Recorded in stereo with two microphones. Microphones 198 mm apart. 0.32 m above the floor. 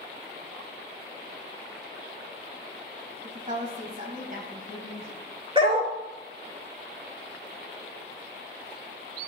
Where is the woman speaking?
40° right (ahead or behind), 1.9 m; by 5.2 s 50° right (ahead or behind), 3 m.